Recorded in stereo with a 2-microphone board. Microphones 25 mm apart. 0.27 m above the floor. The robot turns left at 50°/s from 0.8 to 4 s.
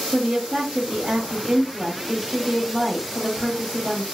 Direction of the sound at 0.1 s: 85° right.